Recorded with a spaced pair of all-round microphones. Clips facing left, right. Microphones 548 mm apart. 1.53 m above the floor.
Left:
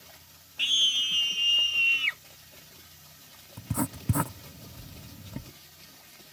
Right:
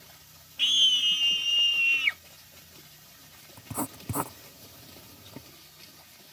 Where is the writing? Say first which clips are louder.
Left 4 dB; 40° left (ahead or behind).